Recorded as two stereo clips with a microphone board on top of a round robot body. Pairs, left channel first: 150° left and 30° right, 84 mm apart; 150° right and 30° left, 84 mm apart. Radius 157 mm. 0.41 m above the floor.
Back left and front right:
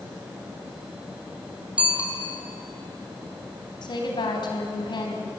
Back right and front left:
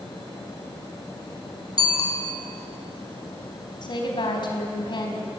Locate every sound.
1.8 s a bicycle bell: 105° right, 4 m
3.8 s a woman speaking: straight behind, 4 m